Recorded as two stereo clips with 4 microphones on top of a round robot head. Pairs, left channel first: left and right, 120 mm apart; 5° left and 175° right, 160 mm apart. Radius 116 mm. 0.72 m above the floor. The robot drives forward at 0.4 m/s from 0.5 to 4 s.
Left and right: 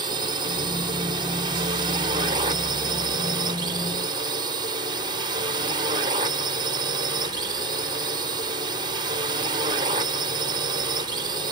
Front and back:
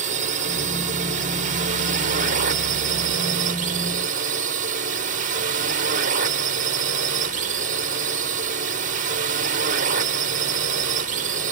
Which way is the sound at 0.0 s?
140° right.